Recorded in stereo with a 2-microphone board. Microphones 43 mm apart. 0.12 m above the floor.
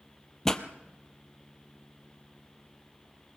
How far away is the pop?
About 1.0 m.